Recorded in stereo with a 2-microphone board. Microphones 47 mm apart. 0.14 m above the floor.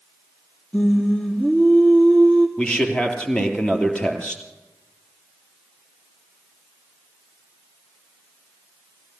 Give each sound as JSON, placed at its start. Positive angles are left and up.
{"t": 0.7, "sound": "singing", "side_deg": 20, "distance_m": 3.0}
{"t": 2.6, "sound": "a man speaking", "side_deg": 20, "distance_m": 3.0}